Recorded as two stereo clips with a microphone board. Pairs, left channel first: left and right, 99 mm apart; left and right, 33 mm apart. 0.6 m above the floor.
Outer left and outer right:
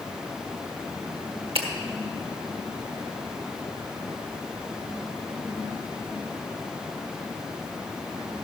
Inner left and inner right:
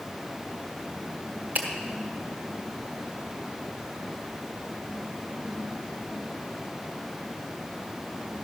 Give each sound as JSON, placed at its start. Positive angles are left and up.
{"t": 1.6, "sound": "a finger snap", "side_deg": -70, "distance_m": 1.4}